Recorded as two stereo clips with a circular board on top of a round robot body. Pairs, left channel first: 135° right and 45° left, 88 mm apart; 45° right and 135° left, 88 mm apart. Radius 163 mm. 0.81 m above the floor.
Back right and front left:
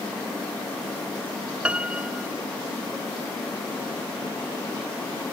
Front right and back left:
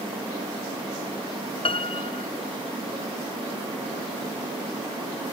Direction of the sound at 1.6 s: 35° right.